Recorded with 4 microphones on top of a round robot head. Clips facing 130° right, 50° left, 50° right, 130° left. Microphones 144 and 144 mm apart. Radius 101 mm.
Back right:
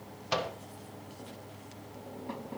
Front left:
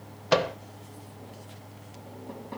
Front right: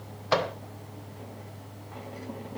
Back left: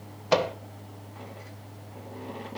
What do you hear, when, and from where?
0.3 s a microwave: 60° left, 0.9 m